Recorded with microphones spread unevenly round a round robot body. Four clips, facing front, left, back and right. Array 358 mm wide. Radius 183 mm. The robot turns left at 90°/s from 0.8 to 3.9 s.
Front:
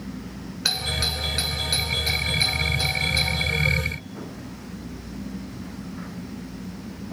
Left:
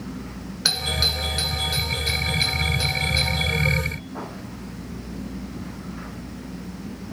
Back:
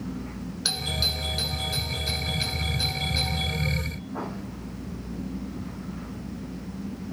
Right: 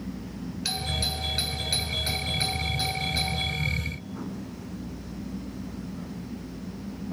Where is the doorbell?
65° left, 4 m; by 3.5 s straight behind, 4 m.